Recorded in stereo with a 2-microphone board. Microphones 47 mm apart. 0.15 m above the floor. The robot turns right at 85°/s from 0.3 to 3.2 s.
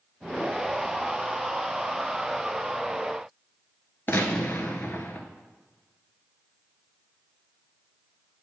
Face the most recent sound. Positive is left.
turn(degrees=45)  # may be behind; listen again after turning